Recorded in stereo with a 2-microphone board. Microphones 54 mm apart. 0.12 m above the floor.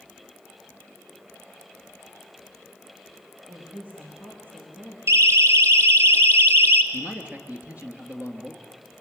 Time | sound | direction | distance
3.5 | a woman speaking | 30° right (ahead or behind) | 5.5 m
5.1 | a siren | 55° right (ahead or behind) | 2 m
6.9 | a man speaking | 25° right (ahead or behind) | 2.5 m